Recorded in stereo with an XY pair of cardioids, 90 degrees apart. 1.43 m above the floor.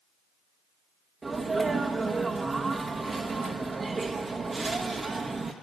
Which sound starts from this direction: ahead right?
A sneeze, at 1.2 s.